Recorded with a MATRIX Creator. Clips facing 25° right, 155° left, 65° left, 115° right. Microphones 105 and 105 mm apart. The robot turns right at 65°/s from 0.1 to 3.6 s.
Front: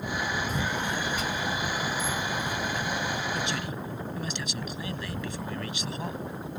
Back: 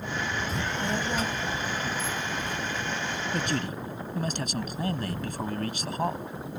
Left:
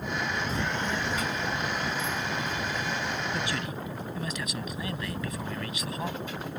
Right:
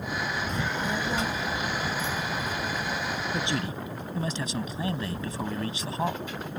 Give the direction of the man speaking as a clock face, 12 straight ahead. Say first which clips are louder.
Back 2 dB, right 2 dB; 6 o'clock.